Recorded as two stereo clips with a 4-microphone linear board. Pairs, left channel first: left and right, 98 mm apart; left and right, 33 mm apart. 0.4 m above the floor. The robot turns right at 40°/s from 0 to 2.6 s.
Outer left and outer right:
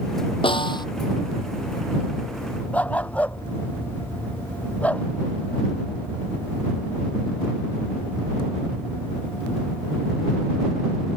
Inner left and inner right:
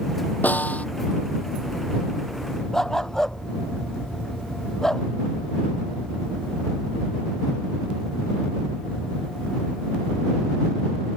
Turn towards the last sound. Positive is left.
turn(degrees=15)  # may be behind; listen again after turning